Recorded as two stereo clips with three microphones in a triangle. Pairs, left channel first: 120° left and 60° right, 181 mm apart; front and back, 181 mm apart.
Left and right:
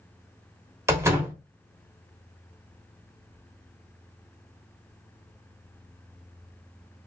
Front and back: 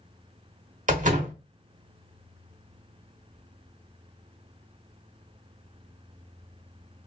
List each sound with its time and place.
0.9 s a door slam: 135° right, 1.0 m